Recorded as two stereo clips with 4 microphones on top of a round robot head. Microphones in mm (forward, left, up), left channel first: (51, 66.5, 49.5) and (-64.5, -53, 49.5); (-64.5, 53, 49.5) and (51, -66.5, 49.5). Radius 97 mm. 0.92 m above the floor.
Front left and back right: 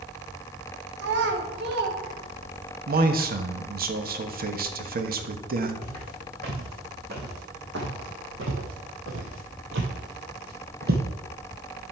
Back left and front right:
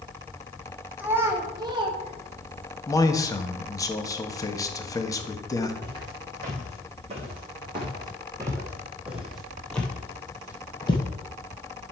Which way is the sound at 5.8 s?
90° right.